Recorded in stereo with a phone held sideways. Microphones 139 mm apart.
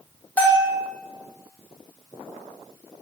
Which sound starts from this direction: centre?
A bell, at 0.4 s.